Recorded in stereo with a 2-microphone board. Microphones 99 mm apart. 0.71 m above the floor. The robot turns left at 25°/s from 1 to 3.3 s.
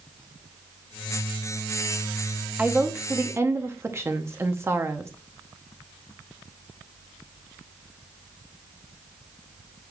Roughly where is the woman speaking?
Centre.